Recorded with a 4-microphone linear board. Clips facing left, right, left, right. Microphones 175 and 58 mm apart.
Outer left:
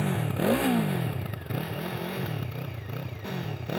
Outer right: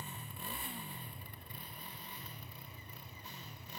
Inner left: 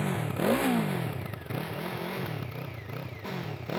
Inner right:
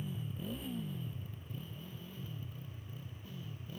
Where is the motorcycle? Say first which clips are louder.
Outer left 22 dB, inner left 14 dB; 75° left (ahead or behind); by 3.8 s 70° left (ahead or behind).